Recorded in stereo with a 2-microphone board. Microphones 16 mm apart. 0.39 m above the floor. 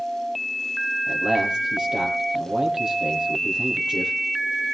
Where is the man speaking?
75° right (ahead or behind), 9 m.